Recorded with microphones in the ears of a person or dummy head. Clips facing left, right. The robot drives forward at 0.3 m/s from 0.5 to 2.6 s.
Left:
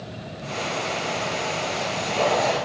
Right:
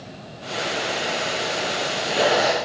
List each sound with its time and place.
Only background noise.